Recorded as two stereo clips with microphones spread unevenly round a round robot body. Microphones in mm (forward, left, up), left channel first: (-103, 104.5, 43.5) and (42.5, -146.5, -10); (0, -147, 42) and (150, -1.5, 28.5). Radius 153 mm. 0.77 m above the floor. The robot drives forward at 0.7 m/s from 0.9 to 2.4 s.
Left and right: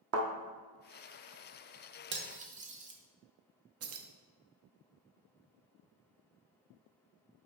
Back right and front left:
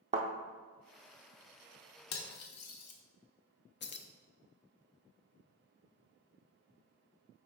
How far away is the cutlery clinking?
About 0.9 m.